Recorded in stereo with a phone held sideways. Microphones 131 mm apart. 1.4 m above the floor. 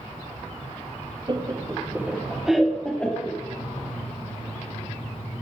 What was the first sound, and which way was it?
Laughter, 35° right (ahead or behind).